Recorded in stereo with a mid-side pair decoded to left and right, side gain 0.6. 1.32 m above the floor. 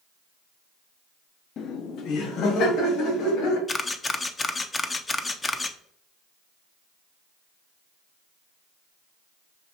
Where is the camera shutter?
20° left, 0.5 m.